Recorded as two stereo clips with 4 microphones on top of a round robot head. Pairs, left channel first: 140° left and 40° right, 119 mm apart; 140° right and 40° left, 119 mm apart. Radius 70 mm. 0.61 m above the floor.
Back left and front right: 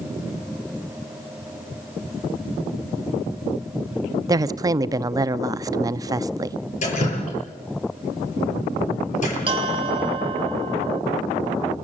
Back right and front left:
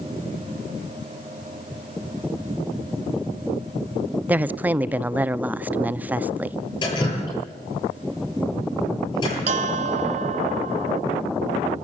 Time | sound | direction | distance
4.3 | a woman speaking | 25° right | 0.6 m
6.8 | dripping | 170° left | 9 m
9.5 | a bell | 10° left | 1.5 m